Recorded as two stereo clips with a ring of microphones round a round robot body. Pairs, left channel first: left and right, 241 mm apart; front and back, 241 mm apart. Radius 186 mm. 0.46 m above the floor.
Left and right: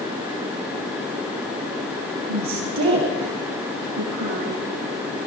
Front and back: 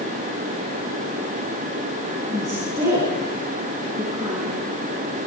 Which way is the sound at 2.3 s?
100° right.